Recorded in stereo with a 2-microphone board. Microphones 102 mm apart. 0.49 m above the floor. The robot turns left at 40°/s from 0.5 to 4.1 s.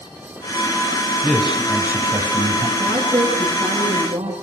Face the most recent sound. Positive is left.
turn(degrees=-80)